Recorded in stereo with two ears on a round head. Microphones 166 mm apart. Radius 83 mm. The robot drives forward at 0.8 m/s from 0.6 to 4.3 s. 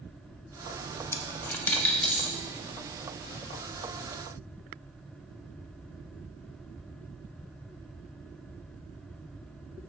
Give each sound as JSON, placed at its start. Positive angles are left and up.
{"t": 1.1, "sound": "a dropped coin", "side_deg": 15, "distance_m": 0.7}